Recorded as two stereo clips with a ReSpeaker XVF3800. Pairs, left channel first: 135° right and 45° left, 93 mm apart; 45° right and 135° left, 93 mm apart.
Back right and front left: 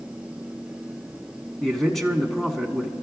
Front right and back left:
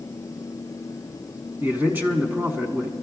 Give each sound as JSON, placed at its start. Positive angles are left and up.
{"t": 1.6, "sound": "a man speaking", "azimuth_deg": 145, "distance_m": 1.1}